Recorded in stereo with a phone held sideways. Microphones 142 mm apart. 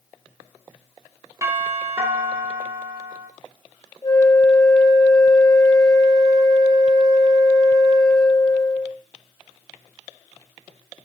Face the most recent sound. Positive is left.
turn(degrees=30)  # may be behind; listen again after turning